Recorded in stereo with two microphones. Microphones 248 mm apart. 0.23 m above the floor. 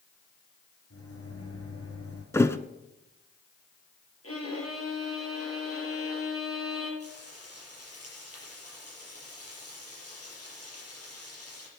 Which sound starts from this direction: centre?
A thud, at 2.3 s.